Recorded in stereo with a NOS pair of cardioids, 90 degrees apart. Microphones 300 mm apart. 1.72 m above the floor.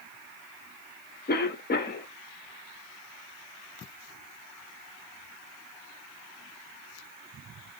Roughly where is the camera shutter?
No camera shutter in this recording.